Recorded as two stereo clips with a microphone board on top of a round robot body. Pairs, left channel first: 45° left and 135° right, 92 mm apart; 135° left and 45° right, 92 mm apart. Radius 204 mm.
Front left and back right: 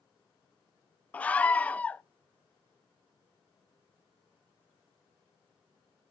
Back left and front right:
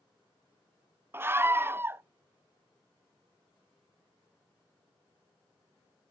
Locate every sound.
1.1 s a scream: 10° right, 0.6 m